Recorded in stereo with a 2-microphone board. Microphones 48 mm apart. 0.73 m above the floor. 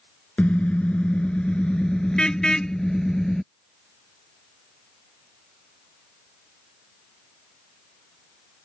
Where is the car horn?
30° left (ahead or behind); by 3.4 s 10° left (ahead or behind).